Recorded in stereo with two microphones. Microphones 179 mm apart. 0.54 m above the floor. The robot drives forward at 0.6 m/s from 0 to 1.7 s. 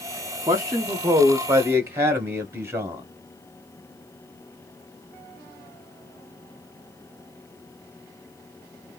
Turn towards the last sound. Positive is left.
turn(degrees=-15)  # may be behind; listen again after turning